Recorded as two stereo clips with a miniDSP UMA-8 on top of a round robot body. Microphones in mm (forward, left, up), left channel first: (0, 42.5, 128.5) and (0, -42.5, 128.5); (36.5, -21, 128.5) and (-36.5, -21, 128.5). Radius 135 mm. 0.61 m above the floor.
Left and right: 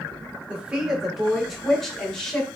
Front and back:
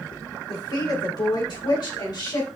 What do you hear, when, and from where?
0.5 s a woman speaking: 15° right, 3 m; by 2.5 s 10° left, 4 m